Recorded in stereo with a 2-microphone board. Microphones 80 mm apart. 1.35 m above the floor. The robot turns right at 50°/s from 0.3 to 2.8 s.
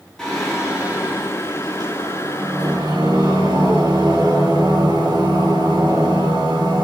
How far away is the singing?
About 2 m.